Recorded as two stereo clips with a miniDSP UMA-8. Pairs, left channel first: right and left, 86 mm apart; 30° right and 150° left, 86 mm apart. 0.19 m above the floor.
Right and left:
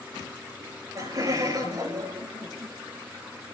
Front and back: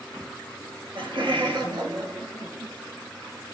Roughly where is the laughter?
Behind left.